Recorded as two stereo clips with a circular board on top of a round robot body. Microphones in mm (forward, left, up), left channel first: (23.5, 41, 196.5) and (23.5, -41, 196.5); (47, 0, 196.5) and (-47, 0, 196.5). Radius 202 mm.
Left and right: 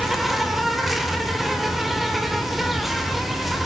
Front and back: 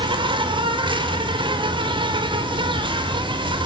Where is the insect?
Straight behind, 3 m.